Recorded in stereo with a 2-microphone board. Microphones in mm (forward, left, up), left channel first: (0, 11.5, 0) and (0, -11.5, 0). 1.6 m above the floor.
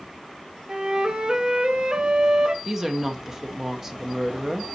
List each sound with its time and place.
0.7 s a flute: 45° right (ahead or behind), 1.4 m
2.6 s a woman speaking: 20° right (ahead or behind), 1.3 m